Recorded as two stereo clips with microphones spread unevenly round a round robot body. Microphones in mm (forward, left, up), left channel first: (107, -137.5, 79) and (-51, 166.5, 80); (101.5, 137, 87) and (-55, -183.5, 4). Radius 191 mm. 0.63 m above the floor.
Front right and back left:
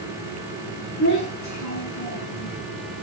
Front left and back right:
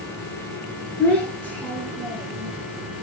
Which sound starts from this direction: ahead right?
A child speaking, at 1.0 s.